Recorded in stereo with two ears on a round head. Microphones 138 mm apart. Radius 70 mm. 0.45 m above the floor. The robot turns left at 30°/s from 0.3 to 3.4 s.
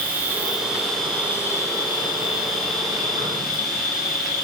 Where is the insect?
165° right, 3.5 m; by 4.5 s 105° left, 3.5 m.